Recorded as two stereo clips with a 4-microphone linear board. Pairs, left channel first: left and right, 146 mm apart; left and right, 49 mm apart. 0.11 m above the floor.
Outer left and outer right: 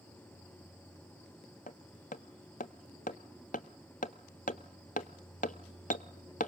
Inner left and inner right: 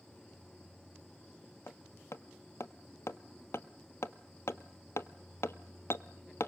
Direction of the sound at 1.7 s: 65° left (ahead or behind).